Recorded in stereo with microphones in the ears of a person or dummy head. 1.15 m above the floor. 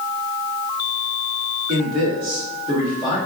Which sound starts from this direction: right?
A man speaking, at 1.7 s.